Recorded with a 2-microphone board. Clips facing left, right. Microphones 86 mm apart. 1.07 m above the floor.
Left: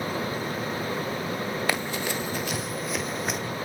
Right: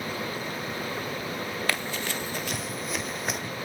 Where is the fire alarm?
I don't hear a fire alarm.